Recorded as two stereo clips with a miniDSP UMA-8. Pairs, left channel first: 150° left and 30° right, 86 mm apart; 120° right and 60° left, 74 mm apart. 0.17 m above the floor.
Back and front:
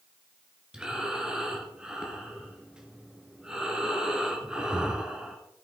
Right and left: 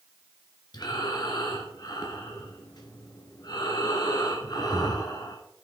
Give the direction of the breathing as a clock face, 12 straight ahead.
4 o'clock.